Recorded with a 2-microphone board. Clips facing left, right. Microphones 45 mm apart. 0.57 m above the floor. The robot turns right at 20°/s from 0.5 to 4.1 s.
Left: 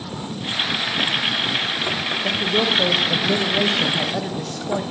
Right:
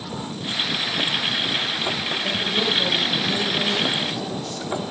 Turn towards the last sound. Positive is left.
turn(degrees=65)